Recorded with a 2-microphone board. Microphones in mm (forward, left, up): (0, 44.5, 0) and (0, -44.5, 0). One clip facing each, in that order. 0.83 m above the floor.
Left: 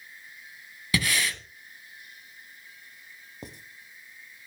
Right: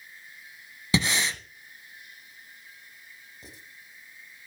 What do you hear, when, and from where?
0.9 s breathing: 25° right (ahead or behind), 1.0 m
3.4 s writing: 60° left (ahead or behind), 1.2 m